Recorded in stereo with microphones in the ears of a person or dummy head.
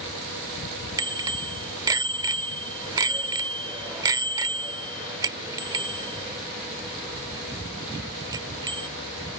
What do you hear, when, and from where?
1.0 s a bicycle bell: 20° right (ahead or behind)